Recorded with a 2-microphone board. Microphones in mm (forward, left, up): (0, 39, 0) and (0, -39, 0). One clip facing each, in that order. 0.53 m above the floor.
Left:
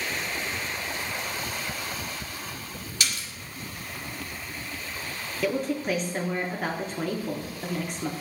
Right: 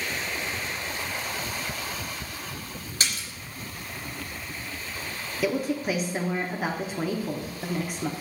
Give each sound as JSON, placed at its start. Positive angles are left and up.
{"t": 3.0, "sound": "a splash", "side_deg": -40, "distance_m": 1.6}
{"t": 5.4, "sound": "a woman speaking", "side_deg": -5, "distance_m": 0.7}